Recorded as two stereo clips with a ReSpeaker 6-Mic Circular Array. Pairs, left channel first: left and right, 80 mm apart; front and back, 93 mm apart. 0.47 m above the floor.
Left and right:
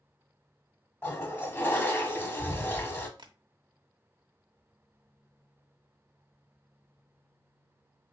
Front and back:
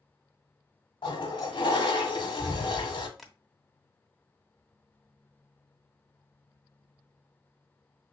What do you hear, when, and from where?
1.0 s a toilet flushing: 25° left, 1.0 m
3.2 s tapping: 90° right, 0.8 m